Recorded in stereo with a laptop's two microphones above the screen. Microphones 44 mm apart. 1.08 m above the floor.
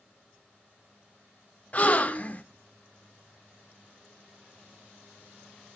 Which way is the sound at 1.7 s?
35° left (ahead or behind).